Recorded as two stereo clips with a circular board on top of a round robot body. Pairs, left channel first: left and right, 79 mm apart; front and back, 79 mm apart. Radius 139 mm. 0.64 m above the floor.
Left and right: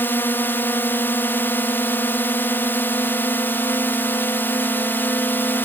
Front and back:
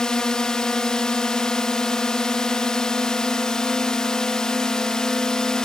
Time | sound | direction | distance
0.0 | a drone | 70° left | ?